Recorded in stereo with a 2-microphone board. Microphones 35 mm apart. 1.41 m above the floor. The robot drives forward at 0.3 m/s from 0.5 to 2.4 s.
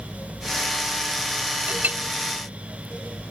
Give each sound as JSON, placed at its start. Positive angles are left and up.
{"t": 1.7, "sound": "a clink", "side_deg": -50}